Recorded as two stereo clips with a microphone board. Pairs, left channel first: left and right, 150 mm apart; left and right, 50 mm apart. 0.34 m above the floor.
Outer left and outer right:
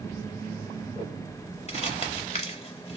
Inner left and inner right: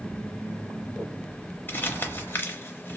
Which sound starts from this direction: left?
Crumpling, at 1.7 s.